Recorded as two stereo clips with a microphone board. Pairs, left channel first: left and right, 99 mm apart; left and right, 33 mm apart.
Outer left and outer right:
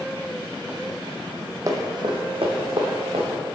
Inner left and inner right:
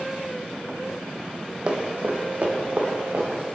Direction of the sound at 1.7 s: 35° right (ahead or behind).